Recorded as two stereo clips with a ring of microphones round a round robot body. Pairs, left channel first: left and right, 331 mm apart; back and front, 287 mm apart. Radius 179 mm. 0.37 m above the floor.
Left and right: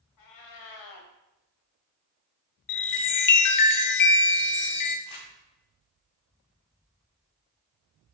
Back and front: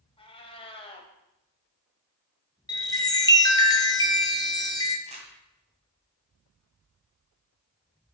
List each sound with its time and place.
0.2 s a cat meowing: 110° left, 1.3 m
2.7 s a chime: 105° left, 0.9 m
5.1 s crumpling: 65° left, 2 m